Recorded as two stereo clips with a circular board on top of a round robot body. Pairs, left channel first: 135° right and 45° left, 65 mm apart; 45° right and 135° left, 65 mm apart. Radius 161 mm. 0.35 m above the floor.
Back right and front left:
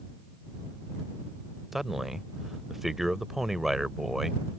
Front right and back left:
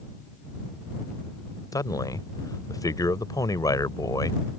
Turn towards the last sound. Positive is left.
turn(degrees=-40)